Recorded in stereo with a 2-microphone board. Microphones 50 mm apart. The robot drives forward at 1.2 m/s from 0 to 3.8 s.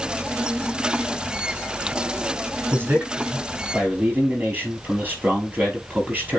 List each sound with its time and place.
2.7 s a man speaking: 40° right (ahead or behind), 4.5 m; by 6.4 s 30° right (ahead or behind), 5.5 m